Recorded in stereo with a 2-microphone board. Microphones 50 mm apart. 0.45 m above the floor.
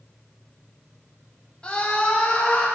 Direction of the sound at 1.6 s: 25° left (ahead or behind).